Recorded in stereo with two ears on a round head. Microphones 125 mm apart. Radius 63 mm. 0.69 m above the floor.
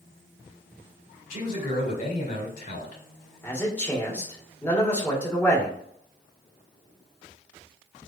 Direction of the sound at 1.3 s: 60° left (ahead or behind).